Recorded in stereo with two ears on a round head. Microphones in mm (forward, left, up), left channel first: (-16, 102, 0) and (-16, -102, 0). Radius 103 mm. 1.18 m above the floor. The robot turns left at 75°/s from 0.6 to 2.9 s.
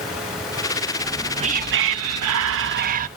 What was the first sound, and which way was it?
Whispering, 5° left.